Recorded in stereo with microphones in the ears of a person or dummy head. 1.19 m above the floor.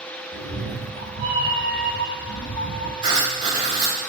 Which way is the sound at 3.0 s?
25° right (ahead or behind).